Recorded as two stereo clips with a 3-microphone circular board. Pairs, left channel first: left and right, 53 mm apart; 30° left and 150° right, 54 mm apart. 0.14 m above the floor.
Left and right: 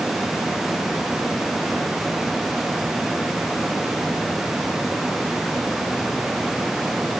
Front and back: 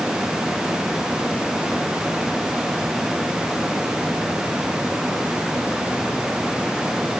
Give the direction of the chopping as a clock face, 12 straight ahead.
No chopping in this recording.